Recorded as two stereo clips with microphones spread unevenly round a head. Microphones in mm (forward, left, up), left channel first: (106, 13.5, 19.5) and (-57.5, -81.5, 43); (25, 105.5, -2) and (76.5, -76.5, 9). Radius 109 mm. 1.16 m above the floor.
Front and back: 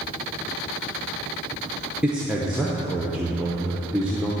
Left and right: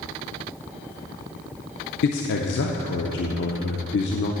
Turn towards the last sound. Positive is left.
turn(degrees=120)